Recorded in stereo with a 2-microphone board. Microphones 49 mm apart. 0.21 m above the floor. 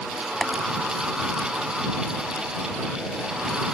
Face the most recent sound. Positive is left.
turn(degrees=10)  # may be behind; listen again after turning